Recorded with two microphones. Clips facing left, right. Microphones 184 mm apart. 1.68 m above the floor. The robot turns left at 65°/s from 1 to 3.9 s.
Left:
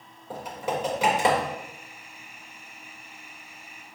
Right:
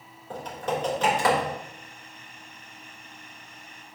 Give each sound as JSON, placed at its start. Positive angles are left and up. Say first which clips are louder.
{"t": 0.3, "sound": "typing on a keyboard", "louder": "even", "side_deg": 10, "distance_m": 3.0}